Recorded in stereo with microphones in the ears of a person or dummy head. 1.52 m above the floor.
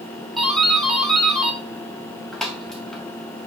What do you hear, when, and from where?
0.4 s a doorbell: centre (ahead or behind), 1.6 m